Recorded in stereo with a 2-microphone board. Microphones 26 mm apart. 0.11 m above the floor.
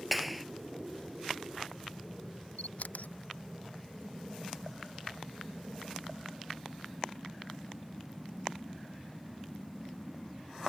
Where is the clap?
Centre (ahead or behind).